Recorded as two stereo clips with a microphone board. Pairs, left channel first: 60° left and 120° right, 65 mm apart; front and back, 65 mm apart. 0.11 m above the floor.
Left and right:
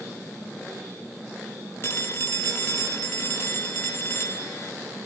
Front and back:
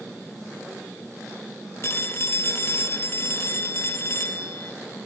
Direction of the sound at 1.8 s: 20° left.